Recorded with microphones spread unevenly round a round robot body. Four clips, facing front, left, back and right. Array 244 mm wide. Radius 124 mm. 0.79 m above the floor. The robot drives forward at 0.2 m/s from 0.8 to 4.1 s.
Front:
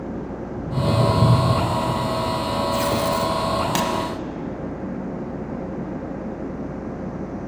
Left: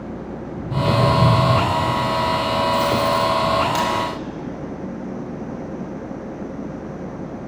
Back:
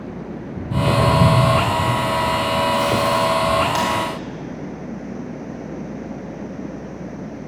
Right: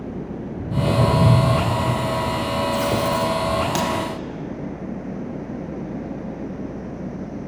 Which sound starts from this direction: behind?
Footsteps, at 0.6 s.